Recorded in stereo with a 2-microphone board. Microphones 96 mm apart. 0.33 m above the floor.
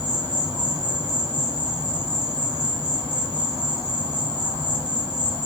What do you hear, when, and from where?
0.0 s an insect: 50° right (ahead or behind), 1.6 m